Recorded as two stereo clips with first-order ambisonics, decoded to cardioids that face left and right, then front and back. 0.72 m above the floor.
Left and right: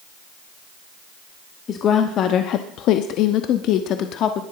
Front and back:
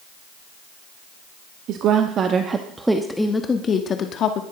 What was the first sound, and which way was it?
A woman speaking, 145° left.